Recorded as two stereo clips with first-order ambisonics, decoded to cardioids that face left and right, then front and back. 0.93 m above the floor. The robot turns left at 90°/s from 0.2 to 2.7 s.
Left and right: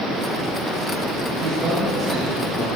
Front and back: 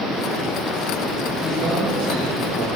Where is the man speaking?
110° right, 5 m; by 2.7 s 135° left, 5 m.